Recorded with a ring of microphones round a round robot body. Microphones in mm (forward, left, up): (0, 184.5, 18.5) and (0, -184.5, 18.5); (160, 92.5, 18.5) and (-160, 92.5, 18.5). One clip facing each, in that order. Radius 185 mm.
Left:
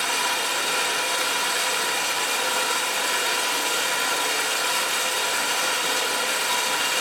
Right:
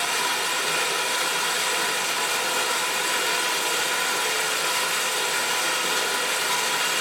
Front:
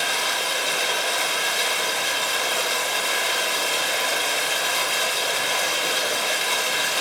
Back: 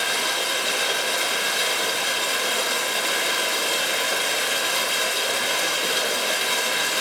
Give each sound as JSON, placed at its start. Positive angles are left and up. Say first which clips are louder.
{"t": 0.0, "sound": "running water", "louder": "even, back 1 dB", "azimuth_deg": 110, "distance_m": 2.5}